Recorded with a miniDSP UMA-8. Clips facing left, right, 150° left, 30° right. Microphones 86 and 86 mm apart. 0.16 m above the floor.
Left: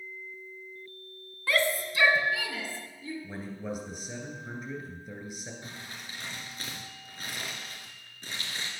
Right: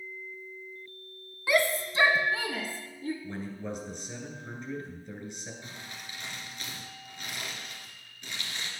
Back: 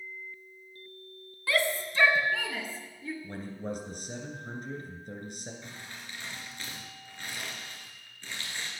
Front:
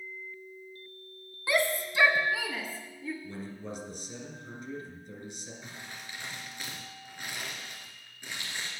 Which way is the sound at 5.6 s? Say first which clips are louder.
Left 1 dB, even; 45° left.